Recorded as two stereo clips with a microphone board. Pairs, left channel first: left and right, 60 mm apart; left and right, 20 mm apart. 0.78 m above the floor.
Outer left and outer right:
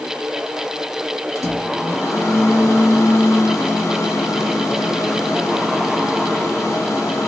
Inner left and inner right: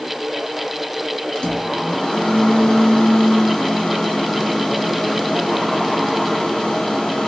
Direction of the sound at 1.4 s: 55° left (ahead or behind).